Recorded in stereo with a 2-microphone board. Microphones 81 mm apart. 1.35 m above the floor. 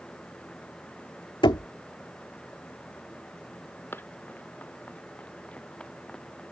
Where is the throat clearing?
No throat clearing in this recording.